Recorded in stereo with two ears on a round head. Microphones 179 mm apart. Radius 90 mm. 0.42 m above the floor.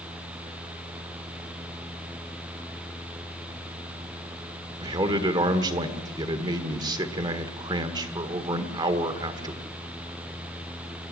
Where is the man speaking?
20° right (ahead or behind), 1.5 m.